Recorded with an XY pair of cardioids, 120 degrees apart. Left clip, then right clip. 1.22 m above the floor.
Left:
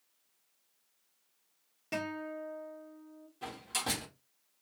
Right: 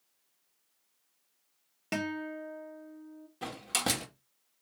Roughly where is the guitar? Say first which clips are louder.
Right 2 dB; ahead right.